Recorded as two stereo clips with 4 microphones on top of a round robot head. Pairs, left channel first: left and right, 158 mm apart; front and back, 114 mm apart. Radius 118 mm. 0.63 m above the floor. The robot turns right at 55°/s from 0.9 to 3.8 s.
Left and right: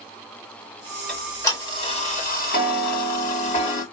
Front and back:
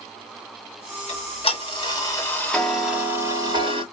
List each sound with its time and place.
1.1 s ticking: straight ahead, 2 m; by 3.8 s 150° left, 2 m